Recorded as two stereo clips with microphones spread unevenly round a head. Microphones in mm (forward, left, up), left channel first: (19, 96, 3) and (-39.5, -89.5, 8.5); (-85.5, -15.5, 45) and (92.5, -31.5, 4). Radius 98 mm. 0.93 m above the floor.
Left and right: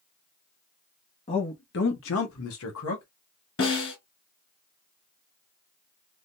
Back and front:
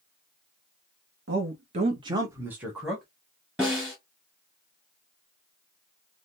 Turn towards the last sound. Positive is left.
turn(degrees=85)